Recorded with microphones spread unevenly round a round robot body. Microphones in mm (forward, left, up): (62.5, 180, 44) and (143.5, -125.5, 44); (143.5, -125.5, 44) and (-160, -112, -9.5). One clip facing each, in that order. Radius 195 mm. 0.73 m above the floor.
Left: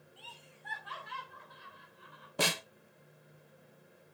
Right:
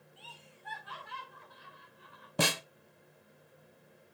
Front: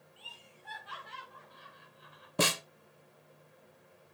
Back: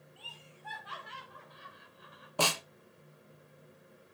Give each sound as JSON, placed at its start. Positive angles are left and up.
{"t": 0.2, "sound": "laughter", "azimuth_deg": 130, "distance_m": 5.0}
{"t": 2.4, "sound": "a snare drum", "azimuth_deg": -70, "distance_m": 1.5}